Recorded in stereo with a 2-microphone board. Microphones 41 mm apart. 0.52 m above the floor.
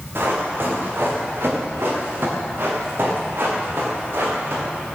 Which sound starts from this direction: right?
Running footsteps, at 0.1 s.